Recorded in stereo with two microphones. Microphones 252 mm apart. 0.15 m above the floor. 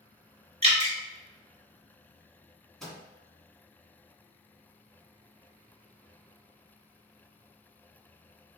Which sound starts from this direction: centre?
A microwave, at 2.8 s.